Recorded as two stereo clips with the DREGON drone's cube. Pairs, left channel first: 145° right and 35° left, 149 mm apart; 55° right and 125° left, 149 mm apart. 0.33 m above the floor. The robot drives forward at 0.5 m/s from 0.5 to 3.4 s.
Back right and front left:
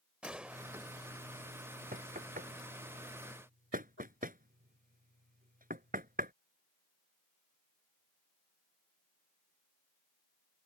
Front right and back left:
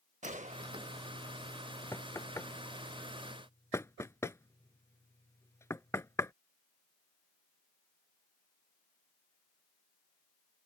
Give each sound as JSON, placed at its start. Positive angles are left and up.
{"t": 0.2, "sound": "a gunshot", "azimuth_deg": 115}
{"t": 1.9, "sound": "knocking", "azimuth_deg": 15}